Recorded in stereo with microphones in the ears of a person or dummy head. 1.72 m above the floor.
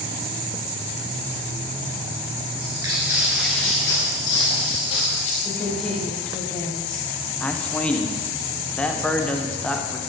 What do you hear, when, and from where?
2.6 s footsteps: 25° right (ahead or behind), 1.9 m; by 5.3 s 35° left (ahead or behind), 3.5 m
5.5 s a woman speaking: 10° left (ahead or behind), 3 m
7.4 s a man speaking: 5° left (ahead or behind), 0.9 m